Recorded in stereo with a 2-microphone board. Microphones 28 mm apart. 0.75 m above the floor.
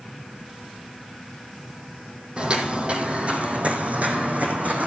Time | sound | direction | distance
2.4 | footsteps | 40° right (ahead or behind) | 1.8 m